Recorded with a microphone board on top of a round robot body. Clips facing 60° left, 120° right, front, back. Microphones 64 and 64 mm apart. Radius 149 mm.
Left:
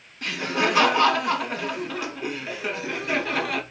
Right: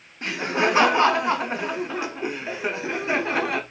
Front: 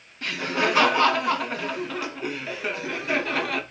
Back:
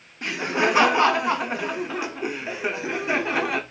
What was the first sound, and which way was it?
Laughter, 135° right.